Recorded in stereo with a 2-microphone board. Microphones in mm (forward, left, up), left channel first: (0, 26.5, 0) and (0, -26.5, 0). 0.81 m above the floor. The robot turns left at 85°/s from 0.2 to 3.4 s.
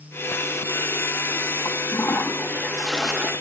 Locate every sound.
1.6 s a toilet flushing: 110° left, 1.0 m; by 3.3 s 30° right, 1.0 m